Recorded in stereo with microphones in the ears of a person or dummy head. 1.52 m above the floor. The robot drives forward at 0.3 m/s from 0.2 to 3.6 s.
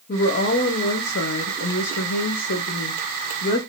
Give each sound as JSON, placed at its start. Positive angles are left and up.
{"t": 0.1, "sound": "a woman speaking", "side_deg": 45, "distance_m": 0.8}